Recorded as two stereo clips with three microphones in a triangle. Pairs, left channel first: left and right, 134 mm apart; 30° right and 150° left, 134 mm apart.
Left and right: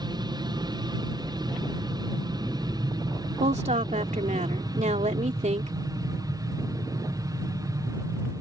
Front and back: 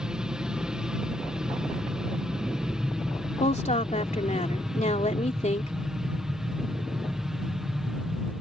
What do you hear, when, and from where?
0.0 s an aircraft: 130° right; by 8.4 s 125° right
3.4 s a woman speaking: 60° right